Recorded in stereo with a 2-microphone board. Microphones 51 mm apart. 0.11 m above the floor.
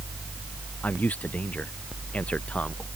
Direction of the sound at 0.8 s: 30° left (ahead or behind).